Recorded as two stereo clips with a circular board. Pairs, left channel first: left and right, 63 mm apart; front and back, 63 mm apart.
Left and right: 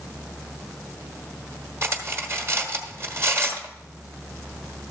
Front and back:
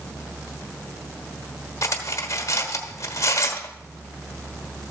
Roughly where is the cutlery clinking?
Ahead right.